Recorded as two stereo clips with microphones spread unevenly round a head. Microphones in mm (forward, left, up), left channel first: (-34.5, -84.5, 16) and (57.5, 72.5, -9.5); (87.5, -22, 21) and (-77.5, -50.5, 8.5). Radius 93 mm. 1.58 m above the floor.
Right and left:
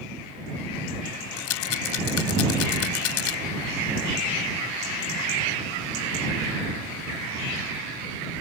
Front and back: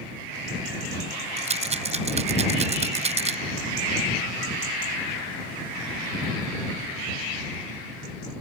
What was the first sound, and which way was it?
A rattle, 120° right.